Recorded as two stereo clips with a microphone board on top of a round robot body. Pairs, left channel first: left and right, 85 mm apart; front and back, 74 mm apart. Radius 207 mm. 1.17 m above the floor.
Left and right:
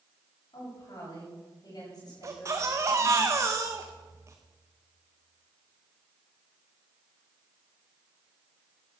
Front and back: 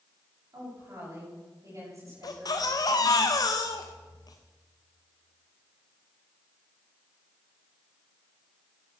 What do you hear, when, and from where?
0.5 s a woman speaking: 130° left, 8.5 m
2.2 s a baby crying: 35° right, 0.6 m